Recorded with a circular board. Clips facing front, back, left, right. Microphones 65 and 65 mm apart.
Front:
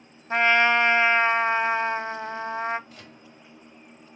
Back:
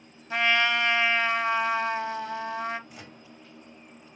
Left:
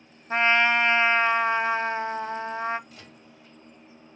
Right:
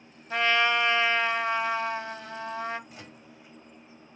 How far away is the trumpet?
About 0.6 m.